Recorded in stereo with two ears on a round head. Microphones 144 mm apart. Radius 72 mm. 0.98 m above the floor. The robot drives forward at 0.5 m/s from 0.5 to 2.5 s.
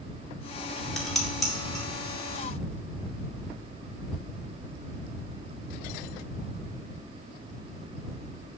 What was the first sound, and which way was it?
Dishes clattering, centre (ahead or behind).